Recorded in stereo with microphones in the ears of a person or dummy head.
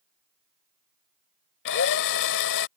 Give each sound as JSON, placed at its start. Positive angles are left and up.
{"t": 1.6, "sound": "a drill", "side_deg": 65}